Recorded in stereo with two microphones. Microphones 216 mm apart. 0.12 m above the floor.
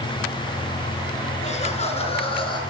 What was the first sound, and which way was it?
Laughter, 35° left (ahead or behind).